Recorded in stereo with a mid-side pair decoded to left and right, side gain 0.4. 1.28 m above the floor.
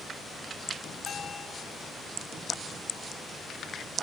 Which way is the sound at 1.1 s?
60° left.